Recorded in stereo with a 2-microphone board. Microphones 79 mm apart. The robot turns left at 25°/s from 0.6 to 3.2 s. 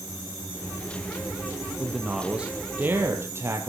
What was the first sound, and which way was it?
A man speaking, straight ahead.